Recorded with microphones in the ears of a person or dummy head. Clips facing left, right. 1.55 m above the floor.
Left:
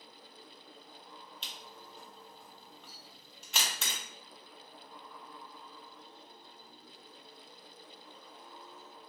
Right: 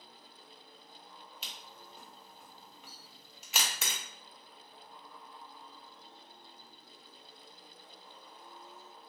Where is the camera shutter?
5° right (ahead or behind), 0.5 m.